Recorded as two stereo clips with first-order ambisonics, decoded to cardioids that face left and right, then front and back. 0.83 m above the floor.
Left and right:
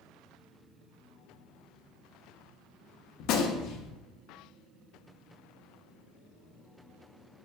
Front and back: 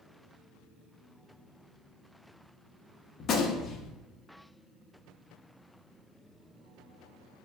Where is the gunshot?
55° left, 0.5 m.